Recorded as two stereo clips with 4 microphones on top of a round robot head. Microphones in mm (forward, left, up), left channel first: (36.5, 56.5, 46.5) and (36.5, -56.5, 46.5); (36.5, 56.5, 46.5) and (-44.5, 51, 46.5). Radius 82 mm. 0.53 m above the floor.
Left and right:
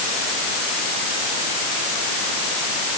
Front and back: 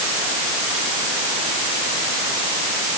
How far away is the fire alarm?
No fire alarm in this recording.